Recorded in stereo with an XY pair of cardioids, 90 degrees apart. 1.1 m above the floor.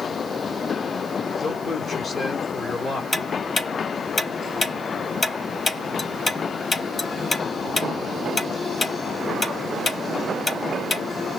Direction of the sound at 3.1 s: 40° left.